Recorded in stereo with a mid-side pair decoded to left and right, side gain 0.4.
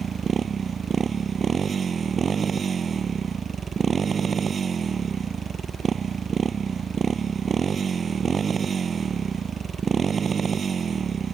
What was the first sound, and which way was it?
A motorcycle, 50° right.